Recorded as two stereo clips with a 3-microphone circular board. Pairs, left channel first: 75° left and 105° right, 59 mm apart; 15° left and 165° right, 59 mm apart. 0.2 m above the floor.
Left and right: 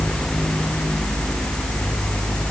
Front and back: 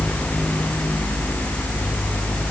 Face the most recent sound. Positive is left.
No sound to turn to.